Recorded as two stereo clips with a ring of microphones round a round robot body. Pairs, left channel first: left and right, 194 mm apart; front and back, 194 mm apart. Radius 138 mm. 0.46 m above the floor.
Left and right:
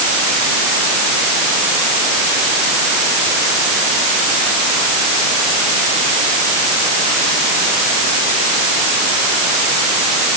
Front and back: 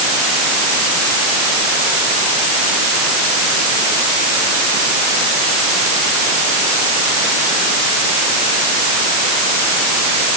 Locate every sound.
Only background noise.